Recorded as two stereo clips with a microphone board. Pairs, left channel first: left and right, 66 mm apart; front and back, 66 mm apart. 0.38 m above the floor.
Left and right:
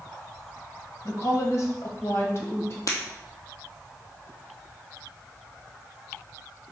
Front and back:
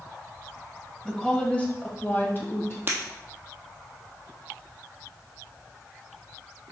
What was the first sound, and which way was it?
A woman speaking, 80° left.